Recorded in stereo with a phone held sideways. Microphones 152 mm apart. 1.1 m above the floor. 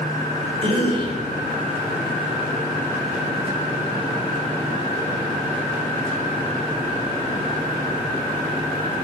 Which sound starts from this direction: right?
A cough, at 0.6 s.